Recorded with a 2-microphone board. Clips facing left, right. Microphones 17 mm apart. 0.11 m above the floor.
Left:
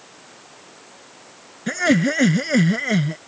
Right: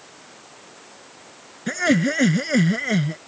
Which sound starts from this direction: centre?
Laughter, at 1.7 s.